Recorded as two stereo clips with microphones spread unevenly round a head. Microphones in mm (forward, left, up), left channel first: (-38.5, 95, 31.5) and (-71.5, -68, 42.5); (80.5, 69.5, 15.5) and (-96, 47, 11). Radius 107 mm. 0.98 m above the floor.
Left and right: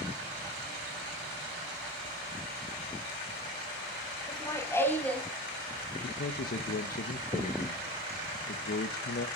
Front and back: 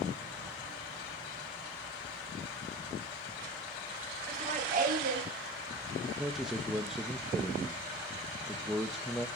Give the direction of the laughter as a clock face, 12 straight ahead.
7 o'clock.